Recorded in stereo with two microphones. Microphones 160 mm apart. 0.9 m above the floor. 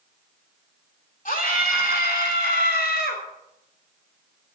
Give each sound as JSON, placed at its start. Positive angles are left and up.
{"t": 1.2, "sound": "a scream", "side_deg": 55, "distance_m": 2.5}